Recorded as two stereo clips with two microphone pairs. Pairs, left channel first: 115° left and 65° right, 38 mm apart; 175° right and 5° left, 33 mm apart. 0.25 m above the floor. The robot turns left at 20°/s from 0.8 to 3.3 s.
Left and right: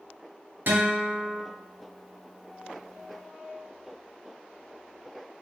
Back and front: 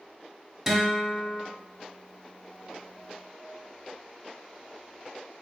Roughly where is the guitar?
Right.